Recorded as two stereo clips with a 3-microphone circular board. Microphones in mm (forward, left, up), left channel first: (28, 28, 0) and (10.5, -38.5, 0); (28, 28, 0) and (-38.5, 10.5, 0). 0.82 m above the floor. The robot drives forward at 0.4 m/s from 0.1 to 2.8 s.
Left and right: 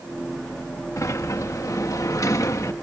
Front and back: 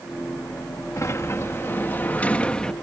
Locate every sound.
1.0 s a sliding door: 45° left; by 2.7 s 90° left